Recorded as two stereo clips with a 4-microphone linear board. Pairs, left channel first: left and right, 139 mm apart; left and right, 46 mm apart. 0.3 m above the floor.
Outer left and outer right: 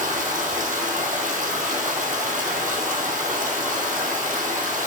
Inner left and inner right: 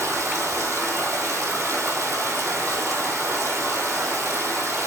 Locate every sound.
0.0 s running water: 75° right (ahead or behind), 1.5 m